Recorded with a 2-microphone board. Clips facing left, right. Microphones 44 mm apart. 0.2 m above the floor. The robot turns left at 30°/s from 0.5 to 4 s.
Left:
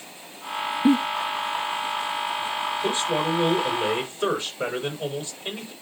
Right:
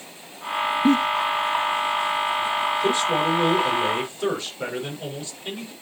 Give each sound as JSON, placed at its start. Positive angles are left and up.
{"t": 0.8, "sound": "a giggle", "side_deg": 10, "distance_m": 0.7}
{"t": 2.8, "sound": "a man speaking", "azimuth_deg": -170, "distance_m": 5.5}